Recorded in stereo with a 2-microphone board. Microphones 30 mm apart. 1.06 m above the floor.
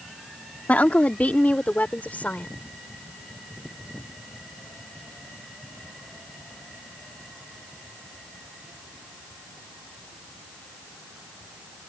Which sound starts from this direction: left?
A woman speaking, at 0.7 s.